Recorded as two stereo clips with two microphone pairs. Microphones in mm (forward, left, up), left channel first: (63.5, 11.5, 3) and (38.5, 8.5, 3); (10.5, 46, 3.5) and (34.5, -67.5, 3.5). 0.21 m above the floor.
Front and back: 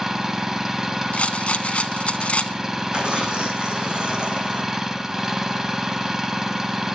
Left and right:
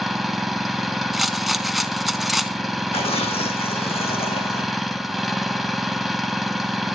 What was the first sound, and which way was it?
An engine running, 160° right.